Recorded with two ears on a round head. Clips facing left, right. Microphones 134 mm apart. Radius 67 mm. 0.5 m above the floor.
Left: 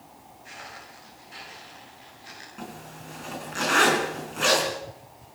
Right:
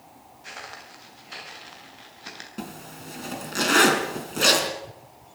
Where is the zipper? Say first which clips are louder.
Right 3 dB; 45° right (ahead or behind), 4 m.